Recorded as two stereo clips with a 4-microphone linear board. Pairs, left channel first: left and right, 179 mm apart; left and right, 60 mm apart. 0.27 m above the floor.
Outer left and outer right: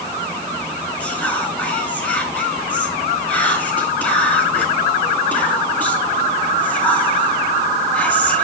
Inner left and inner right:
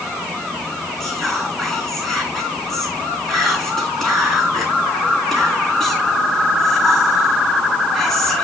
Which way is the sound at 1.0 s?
10° left (ahead or behind).